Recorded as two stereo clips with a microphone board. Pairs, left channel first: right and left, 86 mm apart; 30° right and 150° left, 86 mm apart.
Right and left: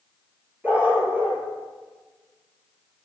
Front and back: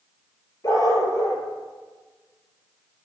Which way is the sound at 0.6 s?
20° left.